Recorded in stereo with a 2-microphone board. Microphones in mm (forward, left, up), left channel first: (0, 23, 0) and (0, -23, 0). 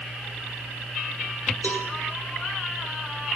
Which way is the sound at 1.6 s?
50° left (ahead or behind).